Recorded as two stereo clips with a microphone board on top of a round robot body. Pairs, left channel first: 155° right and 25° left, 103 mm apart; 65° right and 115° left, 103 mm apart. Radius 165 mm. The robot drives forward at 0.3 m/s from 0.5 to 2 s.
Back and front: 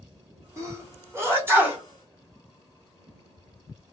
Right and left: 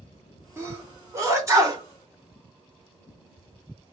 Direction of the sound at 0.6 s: 60° left.